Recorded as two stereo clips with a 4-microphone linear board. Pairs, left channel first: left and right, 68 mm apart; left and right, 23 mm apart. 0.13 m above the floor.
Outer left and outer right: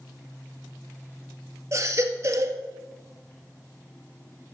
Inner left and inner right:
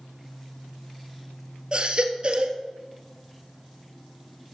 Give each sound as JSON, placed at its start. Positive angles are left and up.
{"t": 1.7, "sound": "a baby crying", "side_deg": -45, "distance_m": 1.5}